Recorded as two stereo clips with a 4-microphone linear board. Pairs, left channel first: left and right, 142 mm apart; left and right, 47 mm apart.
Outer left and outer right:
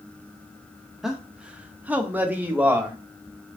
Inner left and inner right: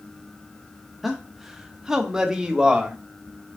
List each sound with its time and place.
1.0 s a man speaking: 5° right (ahead or behind), 0.5 m; by 3.0 s 10° right (ahead or behind), 1.0 m